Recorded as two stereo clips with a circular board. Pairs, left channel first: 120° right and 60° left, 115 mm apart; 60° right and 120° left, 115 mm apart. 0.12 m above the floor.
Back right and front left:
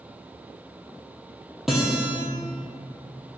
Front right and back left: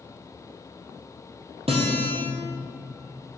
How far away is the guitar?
About 2.0 m.